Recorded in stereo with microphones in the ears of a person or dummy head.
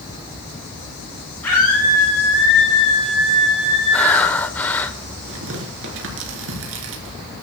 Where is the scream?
5° left (ahead or behind), 8.5 m; by 4.3 s 5° right (ahead or behind), 8 m.